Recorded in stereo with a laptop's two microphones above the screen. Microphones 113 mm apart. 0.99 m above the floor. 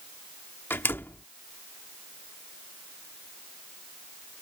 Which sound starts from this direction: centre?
A door slam, at 0.7 s.